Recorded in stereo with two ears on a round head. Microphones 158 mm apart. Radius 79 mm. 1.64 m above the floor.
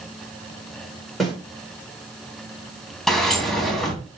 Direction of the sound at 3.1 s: Centre (ahead or behind).